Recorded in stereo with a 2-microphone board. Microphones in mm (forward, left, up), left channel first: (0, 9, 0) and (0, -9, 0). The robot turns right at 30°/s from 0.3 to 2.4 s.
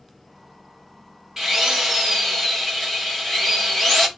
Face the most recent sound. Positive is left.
turn(degrees=15)